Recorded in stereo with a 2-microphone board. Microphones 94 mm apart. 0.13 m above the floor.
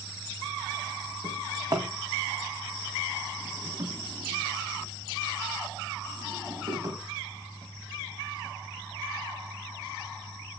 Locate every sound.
1.2 s a drawer: 45° right (ahead or behind), 2.5 m